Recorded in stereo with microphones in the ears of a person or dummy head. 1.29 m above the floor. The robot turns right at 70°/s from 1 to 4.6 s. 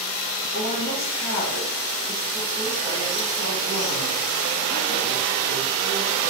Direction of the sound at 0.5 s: 80° left.